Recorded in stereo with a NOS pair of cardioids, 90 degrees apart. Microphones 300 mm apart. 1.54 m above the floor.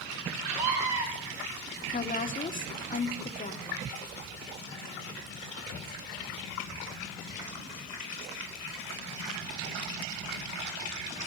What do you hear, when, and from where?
0.5 s a scream: 70° right, 5.5 m
1.9 s a woman speaking: 25° left, 1.6 m